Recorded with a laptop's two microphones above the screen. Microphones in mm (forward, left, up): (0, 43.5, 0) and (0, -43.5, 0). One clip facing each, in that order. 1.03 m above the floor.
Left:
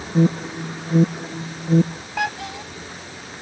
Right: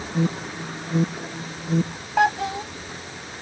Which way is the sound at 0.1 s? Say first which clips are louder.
Left 6 dB; 35° left (ahead or behind).